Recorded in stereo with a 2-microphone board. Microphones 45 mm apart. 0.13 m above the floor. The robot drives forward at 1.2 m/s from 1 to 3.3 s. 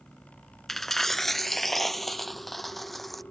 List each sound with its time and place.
0.7 s a dropped coin: 5° left (ahead or behind); by 3.2 s centre (ahead or behind)